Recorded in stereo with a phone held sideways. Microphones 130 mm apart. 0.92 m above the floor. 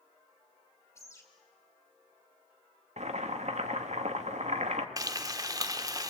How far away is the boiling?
About 1.5 m.